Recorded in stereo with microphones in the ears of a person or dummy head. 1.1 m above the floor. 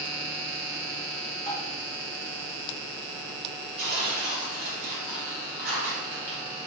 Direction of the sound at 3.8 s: 50° right (ahead or behind).